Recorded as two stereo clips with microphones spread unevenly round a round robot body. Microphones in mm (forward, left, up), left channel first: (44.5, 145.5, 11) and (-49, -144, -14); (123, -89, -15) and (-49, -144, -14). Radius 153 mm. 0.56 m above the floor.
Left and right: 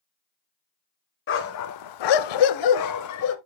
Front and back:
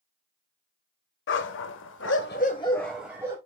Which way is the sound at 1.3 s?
20° left.